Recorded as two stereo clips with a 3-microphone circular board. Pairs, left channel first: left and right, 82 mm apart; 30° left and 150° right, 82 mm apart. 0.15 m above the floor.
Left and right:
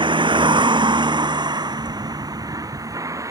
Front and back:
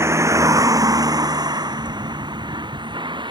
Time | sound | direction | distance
0.0 | a vehicle | 95° right | ?